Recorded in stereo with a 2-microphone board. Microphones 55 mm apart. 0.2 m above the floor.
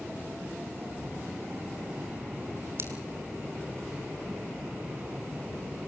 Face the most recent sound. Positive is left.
turn(degrees=-50)  # may be behind; listen again after turning